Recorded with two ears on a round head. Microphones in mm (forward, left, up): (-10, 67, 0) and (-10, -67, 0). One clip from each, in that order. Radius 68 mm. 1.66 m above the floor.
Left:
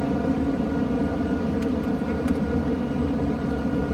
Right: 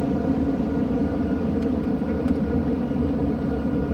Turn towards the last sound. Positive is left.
turn(degrees=45)  # may be behind; listen again after turning